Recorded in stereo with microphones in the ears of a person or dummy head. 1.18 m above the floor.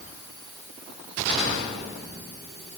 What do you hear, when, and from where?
Only background noise.